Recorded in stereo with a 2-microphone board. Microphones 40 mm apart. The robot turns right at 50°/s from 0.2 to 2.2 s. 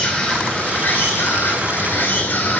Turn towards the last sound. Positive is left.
turn(degrees=125)